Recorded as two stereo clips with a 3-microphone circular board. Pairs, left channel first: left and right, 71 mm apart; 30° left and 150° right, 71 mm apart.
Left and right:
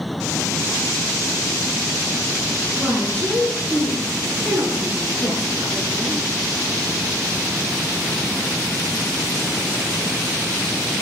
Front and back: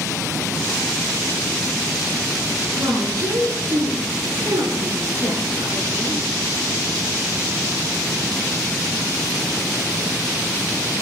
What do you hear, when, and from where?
2.7 s a woman speaking: 135° right, 8.5 m; by 6.2 s 120° right, 9.5 m